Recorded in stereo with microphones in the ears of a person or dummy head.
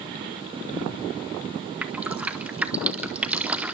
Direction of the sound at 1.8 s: 15° right (ahead or behind).